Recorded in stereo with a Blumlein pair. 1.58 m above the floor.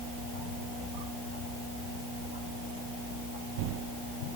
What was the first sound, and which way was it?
Only background noise.